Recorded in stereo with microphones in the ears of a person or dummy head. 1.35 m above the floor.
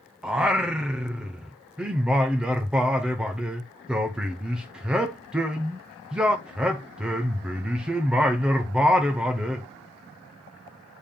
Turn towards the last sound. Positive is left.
turn(degrees=-5)  # may be behind; listen again after turning